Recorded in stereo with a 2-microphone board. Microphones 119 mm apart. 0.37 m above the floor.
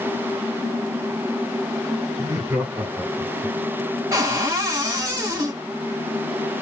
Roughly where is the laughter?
Right.